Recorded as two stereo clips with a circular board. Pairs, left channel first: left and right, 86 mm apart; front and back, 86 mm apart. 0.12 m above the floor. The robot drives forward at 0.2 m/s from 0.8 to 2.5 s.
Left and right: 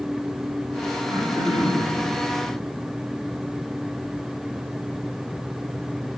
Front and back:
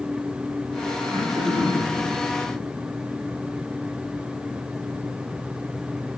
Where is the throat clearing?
155° right, 7 m.